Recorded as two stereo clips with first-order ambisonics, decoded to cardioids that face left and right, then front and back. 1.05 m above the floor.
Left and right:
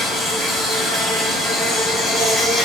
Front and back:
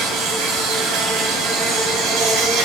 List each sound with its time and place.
0.0 s an insect: 170° left, 1.6 m